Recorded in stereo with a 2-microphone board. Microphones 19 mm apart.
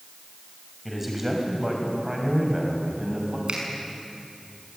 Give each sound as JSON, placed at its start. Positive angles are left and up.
{"t": 0.8, "sound": "a man speaking", "side_deg": -10, "distance_m": 6.0}
{"t": 3.5, "sound": "a finger snap", "side_deg": -60, "distance_m": 6.0}